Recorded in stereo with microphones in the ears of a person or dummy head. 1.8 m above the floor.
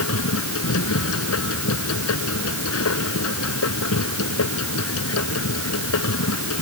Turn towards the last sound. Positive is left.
turn(degrees=80)